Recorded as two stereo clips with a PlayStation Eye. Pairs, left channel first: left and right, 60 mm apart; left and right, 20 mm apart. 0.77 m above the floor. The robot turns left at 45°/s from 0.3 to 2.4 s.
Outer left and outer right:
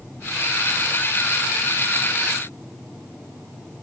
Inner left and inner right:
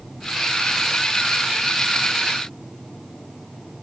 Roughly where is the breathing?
No breathing in this recording.